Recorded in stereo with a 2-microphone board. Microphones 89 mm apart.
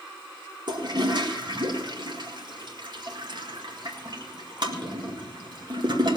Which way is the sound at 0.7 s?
55° right (ahead or behind).